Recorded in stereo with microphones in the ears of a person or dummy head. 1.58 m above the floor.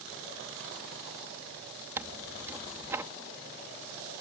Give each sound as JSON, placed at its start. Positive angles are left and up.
{"t": 2.0, "sound": "tearing paper", "side_deg": -15}